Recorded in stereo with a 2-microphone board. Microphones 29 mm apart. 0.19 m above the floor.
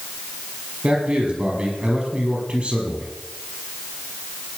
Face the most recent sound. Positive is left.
turn(degrees=-50)  # may be behind; listen again after turning